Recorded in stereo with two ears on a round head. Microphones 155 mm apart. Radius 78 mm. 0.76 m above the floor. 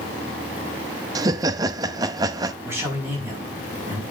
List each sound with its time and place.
1.1 s laughter: 20° right (ahead or behind), 0.6 m
2.6 s a man speaking: 15° right (ahead or behind), 5 m